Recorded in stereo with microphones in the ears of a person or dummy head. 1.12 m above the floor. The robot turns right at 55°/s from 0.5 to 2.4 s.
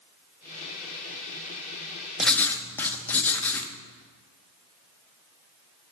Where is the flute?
No flute in this recording.